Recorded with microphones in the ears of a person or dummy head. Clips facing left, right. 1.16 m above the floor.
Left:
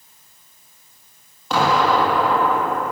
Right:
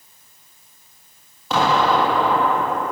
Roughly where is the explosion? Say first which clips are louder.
Even; centre.